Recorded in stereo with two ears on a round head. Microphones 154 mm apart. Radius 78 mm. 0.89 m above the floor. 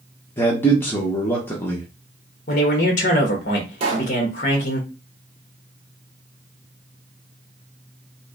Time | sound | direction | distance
0.4 | a man speaking | 15° left (ahead or behind) | 0.9 m
2.5 | a man speaking | 45° left (ahead or behind) | 1.0 m
3.8 | a pop | 35° right (ahead or behind) | 1.1 m